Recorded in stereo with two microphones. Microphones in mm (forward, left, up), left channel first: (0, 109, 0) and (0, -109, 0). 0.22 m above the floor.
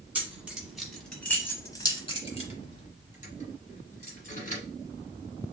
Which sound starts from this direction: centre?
Keys jangling, at 0.1 s.